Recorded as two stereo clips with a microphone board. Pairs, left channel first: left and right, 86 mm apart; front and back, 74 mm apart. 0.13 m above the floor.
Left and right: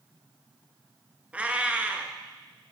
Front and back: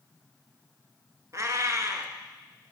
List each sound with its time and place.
1.3 s a cat meowing: 160° right, 0.6 m